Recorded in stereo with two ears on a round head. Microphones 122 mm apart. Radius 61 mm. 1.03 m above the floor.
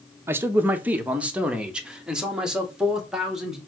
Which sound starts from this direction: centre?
A man speaking, at 0.3 s.